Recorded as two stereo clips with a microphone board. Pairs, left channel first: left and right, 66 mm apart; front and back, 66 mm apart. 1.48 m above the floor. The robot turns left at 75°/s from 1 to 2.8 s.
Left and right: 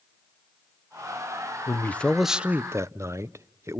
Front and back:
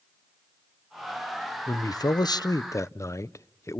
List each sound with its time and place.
1.7 s a man speaking: 40° left, 0.6 m; by 3.8 s 45° right, 0.6 m